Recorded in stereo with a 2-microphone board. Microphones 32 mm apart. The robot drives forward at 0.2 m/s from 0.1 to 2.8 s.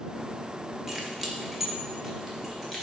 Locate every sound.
0.9 s keys jangling: 15° right (ahead or behind), 0.5 m; by 2.8 s 10° right (ahead or behind), 0.9 m